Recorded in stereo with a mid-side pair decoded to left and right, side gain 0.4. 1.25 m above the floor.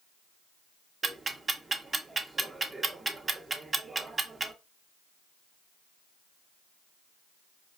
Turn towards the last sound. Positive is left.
turn(degrees=-35)